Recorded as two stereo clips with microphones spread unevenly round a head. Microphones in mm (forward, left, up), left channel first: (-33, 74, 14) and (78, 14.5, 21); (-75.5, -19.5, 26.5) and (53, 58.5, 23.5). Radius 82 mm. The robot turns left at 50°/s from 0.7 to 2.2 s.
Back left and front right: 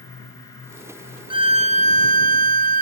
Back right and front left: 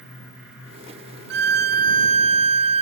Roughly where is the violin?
Ahead left.